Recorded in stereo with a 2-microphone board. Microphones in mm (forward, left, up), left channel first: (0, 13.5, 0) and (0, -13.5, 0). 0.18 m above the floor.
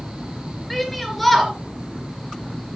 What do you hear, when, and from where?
0.7 s a shout: 5° left (ahead or behind), 3.5 m